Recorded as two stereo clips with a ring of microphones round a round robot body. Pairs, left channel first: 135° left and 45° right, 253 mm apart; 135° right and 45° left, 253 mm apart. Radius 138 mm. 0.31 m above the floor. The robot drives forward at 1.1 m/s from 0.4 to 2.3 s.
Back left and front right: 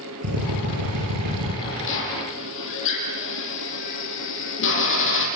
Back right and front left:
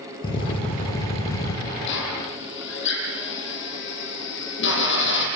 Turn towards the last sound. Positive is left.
turn(degrees=180)